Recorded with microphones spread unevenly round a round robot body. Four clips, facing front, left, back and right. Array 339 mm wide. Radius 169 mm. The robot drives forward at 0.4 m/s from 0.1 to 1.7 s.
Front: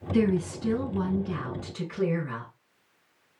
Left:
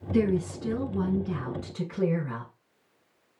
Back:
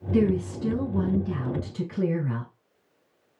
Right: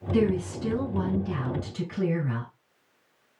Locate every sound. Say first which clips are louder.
0.1 s a woman speaking: right 1 dB, back 2 dB; 150° right, 4.5 m; by 2.5 s 155° right, 5 m